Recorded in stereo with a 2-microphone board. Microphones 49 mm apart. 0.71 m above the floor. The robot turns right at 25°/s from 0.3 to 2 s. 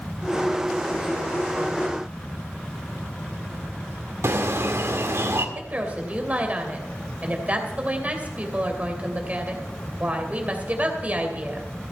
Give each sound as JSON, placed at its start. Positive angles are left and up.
{"t": 4.2, "sound": "a bird", "side_deg": -65, "distance_m": 1.8}
{"t": 5.5, "sound": "a woman speaking", "side_deg": -30, "distance_m": 2.5}